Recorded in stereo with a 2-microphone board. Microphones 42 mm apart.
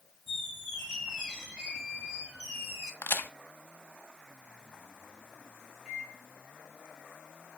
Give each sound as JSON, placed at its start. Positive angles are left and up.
{"t": 0.3, "sound": "a squeak", "side_deg": -5, "distance_m": 4.5}
{"t": 3.0, "sound": "a crack", "side_deg": 70, "distance_m": 0.7}
{"t": 5.8, "sound": "a microwave", "side_deg": 0, "distance_m": 3.0}